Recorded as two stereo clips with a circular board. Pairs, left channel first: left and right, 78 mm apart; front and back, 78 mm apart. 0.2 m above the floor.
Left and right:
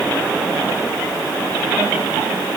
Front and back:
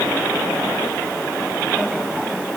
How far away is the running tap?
No running tap in this recording.